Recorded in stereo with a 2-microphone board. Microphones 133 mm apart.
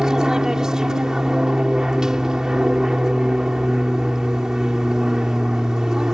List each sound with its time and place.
0.0 s an aircraft: 5° right (ahead or behind)